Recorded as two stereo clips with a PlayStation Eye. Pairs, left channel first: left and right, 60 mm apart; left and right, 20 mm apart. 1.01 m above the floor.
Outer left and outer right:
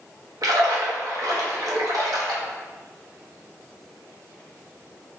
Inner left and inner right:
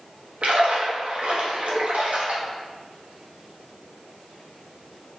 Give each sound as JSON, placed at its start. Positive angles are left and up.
{"t": 0.4, "sound": "a splash", "side_deg": -75, "distance_m": 0.9}